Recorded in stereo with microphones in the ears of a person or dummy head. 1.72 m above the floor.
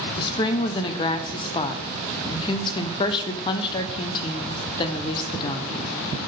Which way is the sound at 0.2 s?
30° left (ahead or behind).